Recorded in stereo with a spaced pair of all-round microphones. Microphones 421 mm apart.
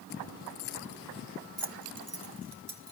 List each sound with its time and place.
1.6 s keys jangling: 25° right (ahead or behind), 0.7 m; by 2.9 s 75° right (ahead or behind), 2.5 m